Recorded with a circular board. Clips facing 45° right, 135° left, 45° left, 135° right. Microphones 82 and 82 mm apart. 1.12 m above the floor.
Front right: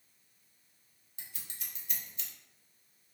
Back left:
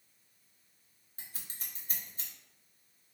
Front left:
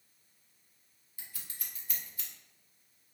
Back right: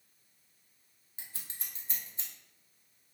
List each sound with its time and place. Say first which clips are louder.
1.2 s scissors: even, back right 1 dB; 170° left, 0.6 m